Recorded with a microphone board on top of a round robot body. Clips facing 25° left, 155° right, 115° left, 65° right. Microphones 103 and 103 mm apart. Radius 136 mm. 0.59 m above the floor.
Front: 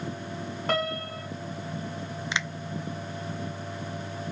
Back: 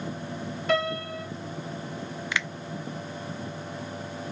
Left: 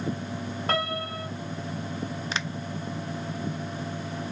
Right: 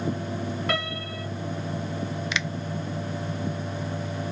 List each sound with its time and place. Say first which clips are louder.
0.7 s a piano: back 3 dB, left 1 dB; 60° left, 2 m
2.3 s a finger snap: back 1 dB, right 2 dB; 80° left, 0.5 m